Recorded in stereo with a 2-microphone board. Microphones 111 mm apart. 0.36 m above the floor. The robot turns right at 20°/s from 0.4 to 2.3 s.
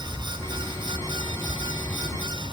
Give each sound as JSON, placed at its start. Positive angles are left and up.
{"t": 0.0, "sound": "an aircraft", "side_deg": -20}